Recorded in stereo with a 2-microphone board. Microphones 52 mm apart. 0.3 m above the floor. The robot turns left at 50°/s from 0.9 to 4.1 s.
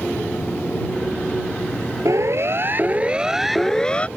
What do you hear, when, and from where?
2.0 s a siren: 70° right (ahead or behind); by 4.1 s 25° left (ahead or behind)